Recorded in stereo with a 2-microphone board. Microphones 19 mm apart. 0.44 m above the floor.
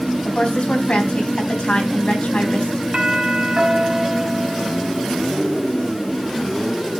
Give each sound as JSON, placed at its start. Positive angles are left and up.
{"t": 0.2, "sound": "a woman speaking", "side_deg": 70, "distance_m": 4.0}
{"t": 2.9, "sound": "a doorbell", "side_deg": -35, "distance_m": 3.5}